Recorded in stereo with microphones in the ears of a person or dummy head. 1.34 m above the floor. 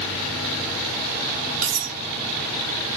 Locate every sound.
1.6 s cutlery clinking: 70° right (ahead or behind), 1.2 m